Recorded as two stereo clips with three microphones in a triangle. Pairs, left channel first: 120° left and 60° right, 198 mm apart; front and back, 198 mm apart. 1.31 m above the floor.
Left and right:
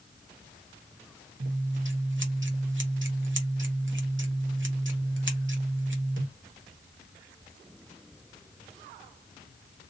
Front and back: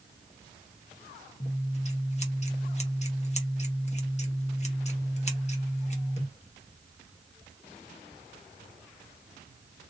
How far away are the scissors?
About 0.9 m.